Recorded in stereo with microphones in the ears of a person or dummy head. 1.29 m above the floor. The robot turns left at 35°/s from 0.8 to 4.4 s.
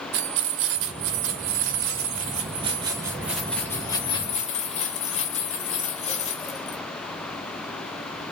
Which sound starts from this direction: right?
Keys jangling, at 0.1 s.